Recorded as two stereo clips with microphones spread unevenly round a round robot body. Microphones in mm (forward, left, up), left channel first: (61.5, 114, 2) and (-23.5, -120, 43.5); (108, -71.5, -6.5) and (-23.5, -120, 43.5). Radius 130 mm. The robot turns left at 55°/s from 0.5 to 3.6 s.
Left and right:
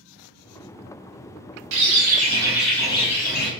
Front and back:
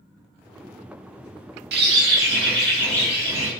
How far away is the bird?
About 0.6 m.